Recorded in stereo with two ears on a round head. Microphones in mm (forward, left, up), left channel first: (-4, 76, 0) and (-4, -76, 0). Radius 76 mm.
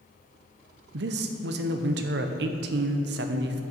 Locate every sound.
0.9 s a man speaking: 70° right (ahead or behind), 0.6 m